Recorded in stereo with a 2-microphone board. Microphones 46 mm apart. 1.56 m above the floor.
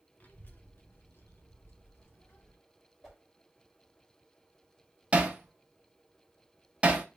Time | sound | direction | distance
0.2 | a child speaking | 35° left (ahead or behind) | 0.9 m
3.0 | a whoosh | 10° left (ahead or behind) | 1.5 m
5.1 | hammering | 25° right (ahead or behind) | 0.6 m